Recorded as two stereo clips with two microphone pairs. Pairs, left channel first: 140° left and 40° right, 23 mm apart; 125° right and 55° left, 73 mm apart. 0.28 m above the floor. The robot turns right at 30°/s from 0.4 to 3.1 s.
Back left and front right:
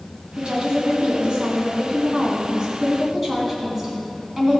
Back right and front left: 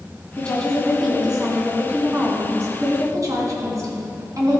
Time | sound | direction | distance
0.4 | a woman speaking | 50° right | 2.5 m